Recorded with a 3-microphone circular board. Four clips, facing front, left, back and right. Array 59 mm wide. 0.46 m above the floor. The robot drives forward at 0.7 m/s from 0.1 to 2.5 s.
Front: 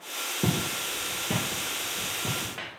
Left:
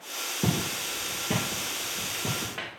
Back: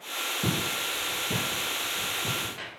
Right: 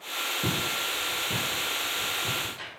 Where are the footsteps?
30° left, 4 m; by 2.7 s 65° left, 3.5 m.